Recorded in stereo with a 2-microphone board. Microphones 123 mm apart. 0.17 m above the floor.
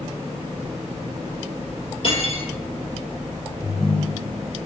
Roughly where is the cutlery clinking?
Left.